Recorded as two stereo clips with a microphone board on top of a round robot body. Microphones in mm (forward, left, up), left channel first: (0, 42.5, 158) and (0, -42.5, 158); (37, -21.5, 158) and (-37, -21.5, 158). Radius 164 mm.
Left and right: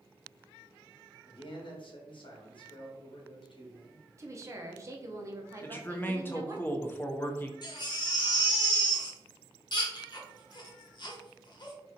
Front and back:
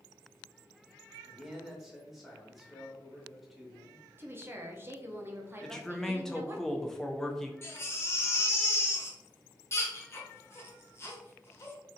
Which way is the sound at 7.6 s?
55° left.